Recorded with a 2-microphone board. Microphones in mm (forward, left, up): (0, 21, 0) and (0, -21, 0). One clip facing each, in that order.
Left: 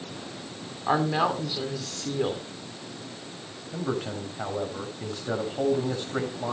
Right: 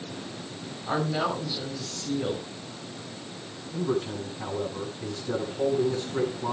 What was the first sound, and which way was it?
A woman speaking, 55° left (ahead or behind).